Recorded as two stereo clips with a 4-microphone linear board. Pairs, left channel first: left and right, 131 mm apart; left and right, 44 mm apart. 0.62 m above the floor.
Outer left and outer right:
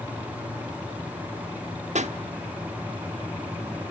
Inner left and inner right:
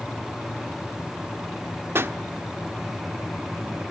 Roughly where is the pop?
Right.